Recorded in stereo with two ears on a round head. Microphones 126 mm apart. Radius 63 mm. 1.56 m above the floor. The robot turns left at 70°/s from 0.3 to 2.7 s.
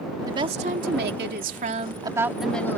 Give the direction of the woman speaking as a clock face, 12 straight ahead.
1 o'clock.